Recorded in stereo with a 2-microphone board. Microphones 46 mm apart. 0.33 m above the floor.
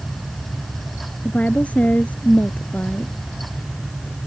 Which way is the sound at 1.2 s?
25° left (ahead or behind).